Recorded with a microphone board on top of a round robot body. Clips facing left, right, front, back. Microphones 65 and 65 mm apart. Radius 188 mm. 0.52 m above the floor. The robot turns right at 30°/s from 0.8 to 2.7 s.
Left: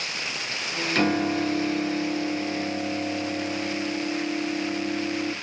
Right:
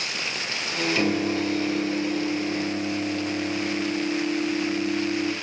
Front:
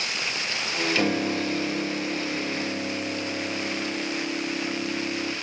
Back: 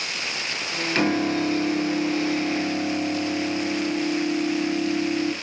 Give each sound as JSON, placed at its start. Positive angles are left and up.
{"t": 0.9, "sound": "a piano", "azimuth_deg": 125, "distance_m": 3.5}